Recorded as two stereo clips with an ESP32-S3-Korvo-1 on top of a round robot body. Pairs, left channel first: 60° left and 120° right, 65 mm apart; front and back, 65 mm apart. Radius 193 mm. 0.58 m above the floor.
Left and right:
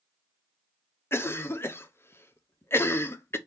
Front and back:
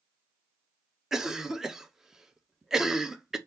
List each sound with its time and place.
1.1 s a cough: 100° left, 0.7 m